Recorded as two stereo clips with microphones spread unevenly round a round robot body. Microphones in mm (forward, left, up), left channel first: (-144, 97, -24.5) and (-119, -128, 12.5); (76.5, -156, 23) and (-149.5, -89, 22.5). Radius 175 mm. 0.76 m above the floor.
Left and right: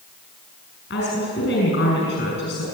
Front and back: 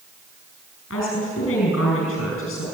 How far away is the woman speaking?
About 6.5 m.